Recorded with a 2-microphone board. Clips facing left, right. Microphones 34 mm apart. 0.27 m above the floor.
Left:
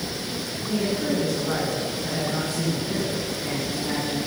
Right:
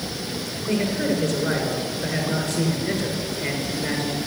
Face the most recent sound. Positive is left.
turn(degrees=-75)  # may be behind; listen again after turning